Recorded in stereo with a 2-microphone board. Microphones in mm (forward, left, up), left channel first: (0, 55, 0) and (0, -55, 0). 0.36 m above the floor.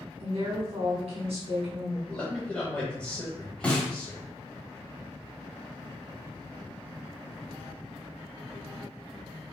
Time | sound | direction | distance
0.2 | a woman speaking | 70° right (ahead or behind) | 2 m
2.1 | a man speaking | 10° left (ahead or behind) | 1.5 m
3.6 | a snare drum | 10° left (ahead or behind) | 1.9 m